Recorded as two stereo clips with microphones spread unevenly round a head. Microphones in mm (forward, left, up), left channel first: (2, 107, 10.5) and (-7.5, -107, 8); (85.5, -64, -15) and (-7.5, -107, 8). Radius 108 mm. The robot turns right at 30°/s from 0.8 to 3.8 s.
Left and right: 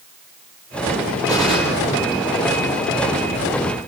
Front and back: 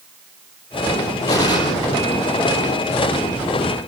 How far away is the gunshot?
About 5 m.